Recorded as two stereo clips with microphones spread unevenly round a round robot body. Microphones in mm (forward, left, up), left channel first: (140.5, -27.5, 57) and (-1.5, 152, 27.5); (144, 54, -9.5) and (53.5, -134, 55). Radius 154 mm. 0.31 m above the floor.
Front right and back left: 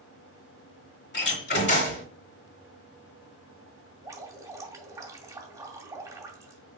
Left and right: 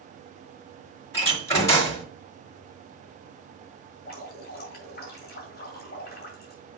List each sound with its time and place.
1.1 s a door slam: 5° right, 2.5 m
4.0 s dripping: 60° left, 2.5 m